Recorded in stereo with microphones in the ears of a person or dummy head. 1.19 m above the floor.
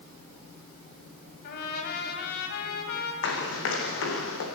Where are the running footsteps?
75° left (ahead or behind), 5 m; by 4.5 s 80° left, 5 m.